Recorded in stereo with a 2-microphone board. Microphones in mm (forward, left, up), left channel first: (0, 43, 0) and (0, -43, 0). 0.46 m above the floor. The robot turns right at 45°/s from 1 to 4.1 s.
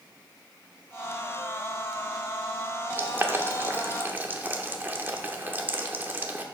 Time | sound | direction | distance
3.0 | boiling | 25° right (ahead or behind) | 0.8 m